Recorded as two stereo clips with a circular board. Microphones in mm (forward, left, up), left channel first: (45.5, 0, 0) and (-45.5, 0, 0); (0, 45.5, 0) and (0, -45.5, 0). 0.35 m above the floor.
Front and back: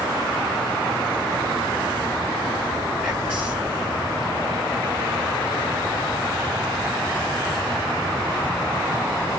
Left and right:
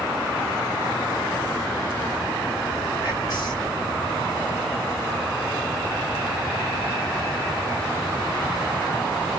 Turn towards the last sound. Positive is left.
turn(degrees=95)